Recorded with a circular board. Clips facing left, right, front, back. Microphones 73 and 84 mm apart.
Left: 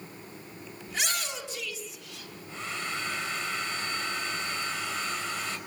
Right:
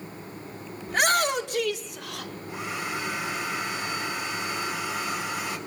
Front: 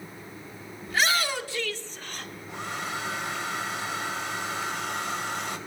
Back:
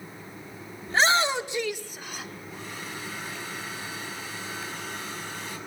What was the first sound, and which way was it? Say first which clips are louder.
A shout: right 11 dB, back 4 dB; 125° right.